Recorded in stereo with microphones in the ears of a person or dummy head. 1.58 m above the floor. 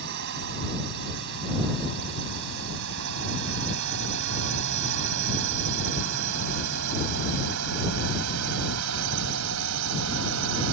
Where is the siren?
I don't hear a siren.